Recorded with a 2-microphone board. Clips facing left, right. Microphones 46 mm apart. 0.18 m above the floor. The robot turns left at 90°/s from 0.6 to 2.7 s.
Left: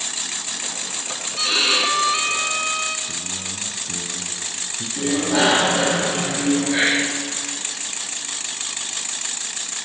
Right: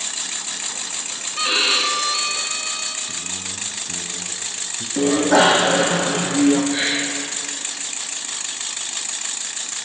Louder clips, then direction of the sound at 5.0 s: Right 5 dB; 60° right (ahead or behind).